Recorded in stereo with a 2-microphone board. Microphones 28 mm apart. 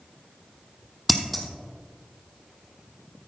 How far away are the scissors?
About 1.3 m.